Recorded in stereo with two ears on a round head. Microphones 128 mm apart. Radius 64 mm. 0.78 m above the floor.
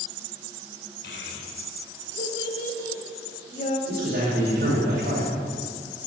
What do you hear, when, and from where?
1.0 s a child speaking: 80° left, 2 m; by 3.8 s 50° left (ahead or behind), 1.6 m
3.9 s a man speaking: 75° right (ahead or behind), 2.5 m